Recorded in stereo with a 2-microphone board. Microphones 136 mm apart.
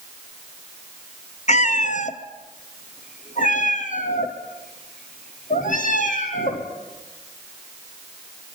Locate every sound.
1.5 s a cat meowing: 60° left (ahead or behind), 1.1 m; by 6.7 s 70° left (ahead or behind), 4 m